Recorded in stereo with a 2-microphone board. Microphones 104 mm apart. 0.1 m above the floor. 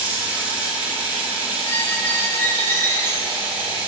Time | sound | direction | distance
0.0 | running water | 15° right (ahead or behind) | 3 m
1.6 | a squeak | 20° left (ahead or behind) | 2 m